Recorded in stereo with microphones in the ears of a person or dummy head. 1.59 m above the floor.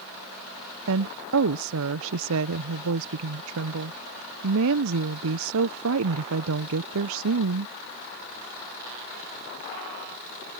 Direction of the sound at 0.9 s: 75° right (ahead or behind).